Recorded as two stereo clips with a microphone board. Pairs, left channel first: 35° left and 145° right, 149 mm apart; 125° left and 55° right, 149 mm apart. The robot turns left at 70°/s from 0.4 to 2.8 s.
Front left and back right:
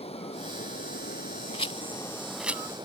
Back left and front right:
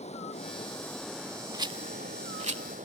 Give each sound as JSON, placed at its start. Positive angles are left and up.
{"t": 0.0, "sound": "running water", "azimuth_deg": 80}
{"t": 1.5, "sound": "a rattle", "azimuth_deg": 0}